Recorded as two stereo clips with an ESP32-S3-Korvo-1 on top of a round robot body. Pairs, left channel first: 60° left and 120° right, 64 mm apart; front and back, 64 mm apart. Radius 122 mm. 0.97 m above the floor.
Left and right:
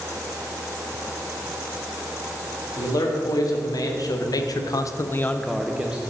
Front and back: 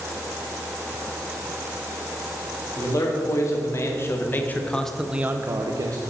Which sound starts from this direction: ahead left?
A man speaking, at 2.8 s.